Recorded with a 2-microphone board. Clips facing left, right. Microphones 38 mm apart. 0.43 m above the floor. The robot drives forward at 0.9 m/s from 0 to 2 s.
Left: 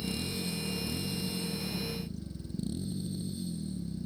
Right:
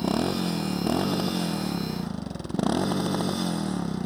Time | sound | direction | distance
0.0 | a motorcycle | 90° right | ?